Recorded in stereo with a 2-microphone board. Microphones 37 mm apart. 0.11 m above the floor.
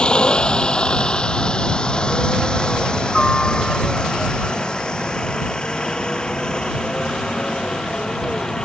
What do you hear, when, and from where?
0.0 s a helicopter: 30° left (ahead or behind); by 8.7 s 25° left (ahead or behind)